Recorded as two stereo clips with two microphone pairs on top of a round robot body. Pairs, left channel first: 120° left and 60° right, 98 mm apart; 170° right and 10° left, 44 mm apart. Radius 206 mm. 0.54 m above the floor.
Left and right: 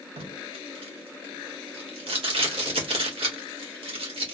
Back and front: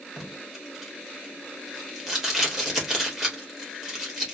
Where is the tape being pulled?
70° right, 1.9 m.